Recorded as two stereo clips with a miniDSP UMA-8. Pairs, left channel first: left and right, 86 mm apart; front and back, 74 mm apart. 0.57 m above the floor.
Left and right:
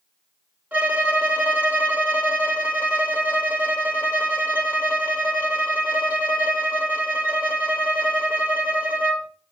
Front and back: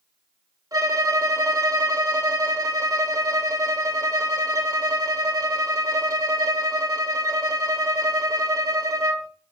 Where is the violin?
160° right, 2.0 m.